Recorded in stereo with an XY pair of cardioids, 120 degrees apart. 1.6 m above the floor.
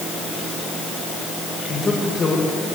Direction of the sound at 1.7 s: 35° left.